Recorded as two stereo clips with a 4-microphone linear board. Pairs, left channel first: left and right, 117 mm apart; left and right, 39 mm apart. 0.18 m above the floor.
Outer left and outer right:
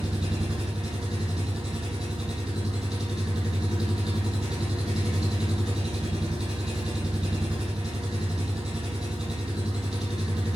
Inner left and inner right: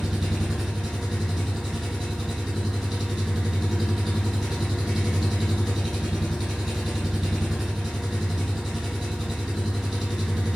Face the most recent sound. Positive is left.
turn(degrees=-10)  # may be behind; listen again after turning